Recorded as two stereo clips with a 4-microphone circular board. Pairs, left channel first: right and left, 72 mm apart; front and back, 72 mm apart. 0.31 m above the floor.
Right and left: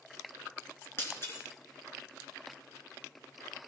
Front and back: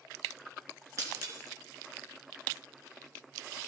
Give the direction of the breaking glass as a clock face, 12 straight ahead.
5 o'clock.